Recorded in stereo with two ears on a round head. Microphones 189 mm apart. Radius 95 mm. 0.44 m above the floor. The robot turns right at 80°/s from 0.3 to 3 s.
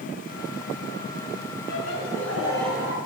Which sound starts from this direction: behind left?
Laughter, at 1.7 s.